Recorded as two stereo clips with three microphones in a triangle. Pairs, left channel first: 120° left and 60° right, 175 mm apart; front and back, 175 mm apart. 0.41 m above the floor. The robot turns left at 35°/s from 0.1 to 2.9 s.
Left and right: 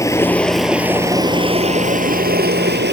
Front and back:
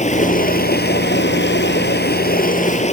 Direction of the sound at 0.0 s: 50° left.